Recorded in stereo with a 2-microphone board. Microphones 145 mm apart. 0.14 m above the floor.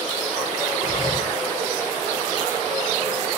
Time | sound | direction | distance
0.8 | breathing | 40° left (ahead or behind) | 2.5 m